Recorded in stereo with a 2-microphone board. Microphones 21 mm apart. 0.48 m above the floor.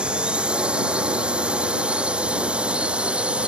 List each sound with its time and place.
0.0 s a drone: 60° right (ahead or behind); by 3.5 s 70° right (ahead or behind)